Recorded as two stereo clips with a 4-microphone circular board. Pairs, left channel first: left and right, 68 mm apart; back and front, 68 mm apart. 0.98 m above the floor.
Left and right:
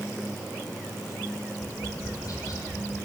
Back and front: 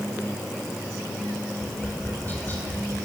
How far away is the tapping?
About 5 m.